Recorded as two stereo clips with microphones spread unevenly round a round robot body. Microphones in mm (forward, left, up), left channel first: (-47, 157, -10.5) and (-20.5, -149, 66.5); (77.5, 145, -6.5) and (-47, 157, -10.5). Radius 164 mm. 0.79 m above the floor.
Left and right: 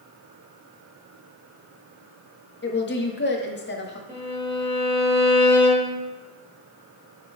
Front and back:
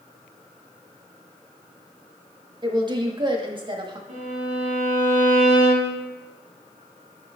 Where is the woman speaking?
130° left, 1.3 m.